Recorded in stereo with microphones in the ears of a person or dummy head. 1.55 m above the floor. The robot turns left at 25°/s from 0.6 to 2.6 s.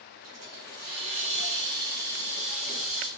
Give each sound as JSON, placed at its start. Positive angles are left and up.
{"t": 0.2, "sound": "a hiss", "azimuth_deg": -125, "distance_m": 8.0}